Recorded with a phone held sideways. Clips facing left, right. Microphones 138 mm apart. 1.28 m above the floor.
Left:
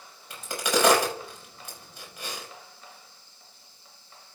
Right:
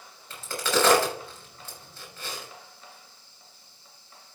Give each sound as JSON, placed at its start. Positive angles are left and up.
{"t": 0.3, "sound": "a crack", "side_deg": 15, "distance_m": 5.5}